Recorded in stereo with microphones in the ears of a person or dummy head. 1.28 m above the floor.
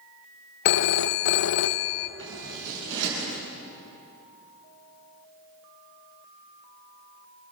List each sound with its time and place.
0.7 s a phone ringing: 55° left (ahead or behind), 0.5 m
2.2 s scissors: 65° right (ahead or behind), 8.5 m